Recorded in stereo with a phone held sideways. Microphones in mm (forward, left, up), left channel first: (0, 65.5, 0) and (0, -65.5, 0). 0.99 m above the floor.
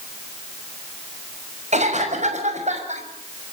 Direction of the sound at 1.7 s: 60° right (ahead or behind).